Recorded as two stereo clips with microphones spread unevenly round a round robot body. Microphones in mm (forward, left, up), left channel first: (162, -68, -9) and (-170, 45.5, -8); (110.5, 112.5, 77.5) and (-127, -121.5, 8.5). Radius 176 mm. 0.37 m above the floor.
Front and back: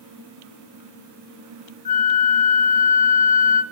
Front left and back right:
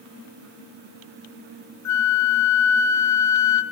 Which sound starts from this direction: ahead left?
A flute, at 1.9 s.